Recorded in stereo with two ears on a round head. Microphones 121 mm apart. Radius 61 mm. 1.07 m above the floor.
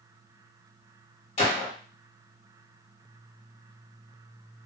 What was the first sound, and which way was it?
A gunshot, 50° left (ahead or behind).